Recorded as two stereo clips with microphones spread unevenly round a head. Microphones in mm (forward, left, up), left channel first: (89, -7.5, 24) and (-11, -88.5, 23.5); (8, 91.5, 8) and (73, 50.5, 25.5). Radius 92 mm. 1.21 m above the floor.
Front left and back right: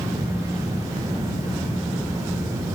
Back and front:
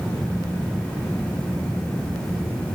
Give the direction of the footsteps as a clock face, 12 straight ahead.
I don't hear footsteps.